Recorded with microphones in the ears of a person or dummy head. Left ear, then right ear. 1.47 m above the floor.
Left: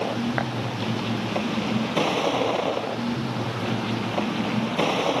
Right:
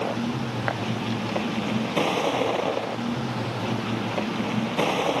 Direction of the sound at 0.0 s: 5° right (ahead or behind).